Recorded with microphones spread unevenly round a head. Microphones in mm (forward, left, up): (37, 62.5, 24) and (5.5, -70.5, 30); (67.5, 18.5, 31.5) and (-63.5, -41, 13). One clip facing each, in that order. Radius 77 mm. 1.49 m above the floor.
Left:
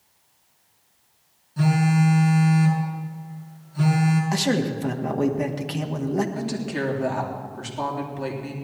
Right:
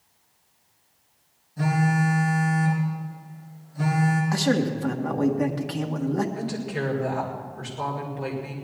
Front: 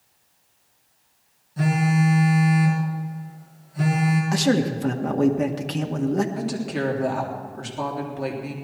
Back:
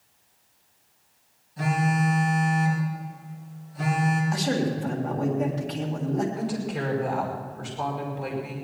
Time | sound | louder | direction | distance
1.6 | a phone buzzing | left 3 dB, front 3 dB | 65° left | 4.5 m
4.3 | a man speaking | even, front 5 dB | 5° left | 1.8 m
6.3 | a woman speaking | left 2 dB, front 3 dB | 40° left | 3.5 m